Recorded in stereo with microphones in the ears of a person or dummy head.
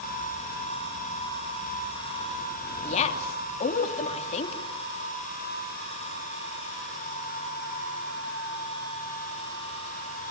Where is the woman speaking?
40° left (ahead or behind), 2.5 m.